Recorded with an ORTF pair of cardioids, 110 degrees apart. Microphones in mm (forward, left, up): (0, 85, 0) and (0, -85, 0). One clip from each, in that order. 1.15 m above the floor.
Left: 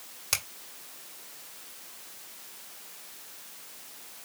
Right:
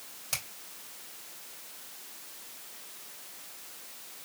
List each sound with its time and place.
0.3 s a finger snap: 50° left, 2.5 m